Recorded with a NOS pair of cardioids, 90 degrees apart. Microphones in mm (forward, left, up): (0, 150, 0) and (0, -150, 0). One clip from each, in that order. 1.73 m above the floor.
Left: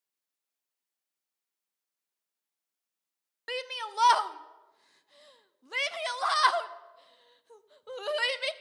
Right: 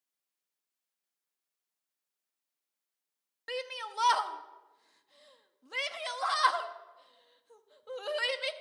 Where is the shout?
15° left, 0.6 m.